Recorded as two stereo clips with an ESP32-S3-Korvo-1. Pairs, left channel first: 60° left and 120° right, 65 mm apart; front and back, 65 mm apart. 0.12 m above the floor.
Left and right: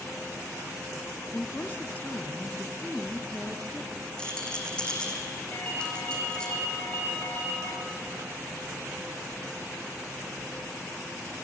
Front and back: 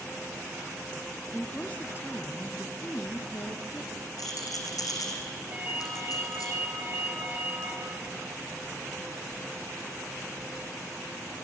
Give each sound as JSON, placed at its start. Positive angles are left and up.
{"t": 1.3, "sound": "a woman speaking", "azimuth_deg": 60, "distance_m": 1.2}
{"t": 4.2, "sound": "a rattle", "azimuth_deg": -15, "distance_m": 3.0}
{"t": 5.5, "sound": "a ringtone", "azimuth_deg": 115, "distance_m": 6.0}